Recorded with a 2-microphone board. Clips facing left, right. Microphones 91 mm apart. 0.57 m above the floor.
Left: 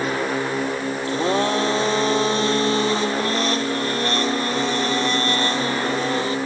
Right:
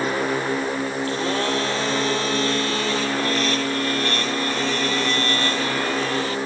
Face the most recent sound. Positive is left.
turn(degrees=25)  # may be behind; listen again after turning